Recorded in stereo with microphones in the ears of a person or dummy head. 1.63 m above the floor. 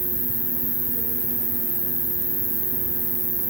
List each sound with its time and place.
0.0 s an insect: 40° right (ahead or behind), 6.5 m